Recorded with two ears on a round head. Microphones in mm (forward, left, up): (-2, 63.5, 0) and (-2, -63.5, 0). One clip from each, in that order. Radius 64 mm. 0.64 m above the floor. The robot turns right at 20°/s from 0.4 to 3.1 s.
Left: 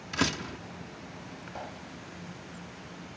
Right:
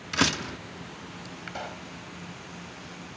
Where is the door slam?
20° right (ahead or behind); by 0.6 s 15° right (ahead or behind).